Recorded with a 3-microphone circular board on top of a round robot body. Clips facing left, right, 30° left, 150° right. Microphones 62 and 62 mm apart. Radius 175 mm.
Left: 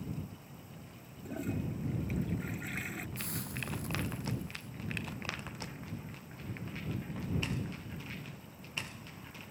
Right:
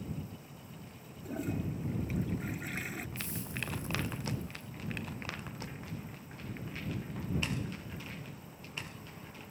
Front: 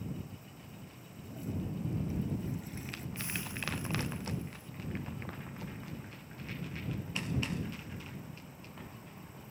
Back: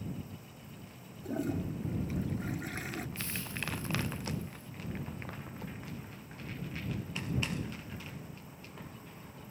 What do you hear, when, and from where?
1.2 s a toilet flushing: straight behind
3.2 s a hiss: 100° left